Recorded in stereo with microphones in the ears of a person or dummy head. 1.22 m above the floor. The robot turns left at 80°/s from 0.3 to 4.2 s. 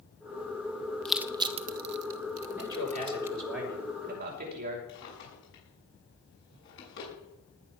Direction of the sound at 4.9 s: 60° left (ahead or behind).